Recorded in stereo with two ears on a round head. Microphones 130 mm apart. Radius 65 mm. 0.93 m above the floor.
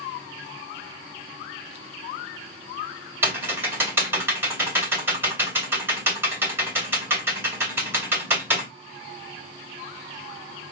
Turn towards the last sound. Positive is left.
turn(degrees=-15)  # may be behind; listen again after turning